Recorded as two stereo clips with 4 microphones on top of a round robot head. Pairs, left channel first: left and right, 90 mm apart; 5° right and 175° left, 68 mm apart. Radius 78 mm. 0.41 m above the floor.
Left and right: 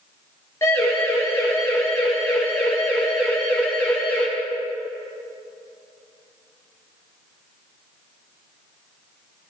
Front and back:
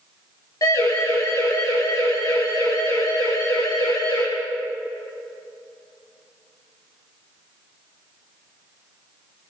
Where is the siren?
25° left, 9.5 m; by 4.3 s 15° left, 10 m.